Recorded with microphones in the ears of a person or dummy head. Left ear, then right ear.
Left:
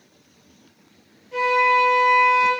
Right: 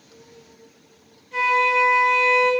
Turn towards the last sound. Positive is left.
turn(degrees=0)  # may be behind; listen again after turning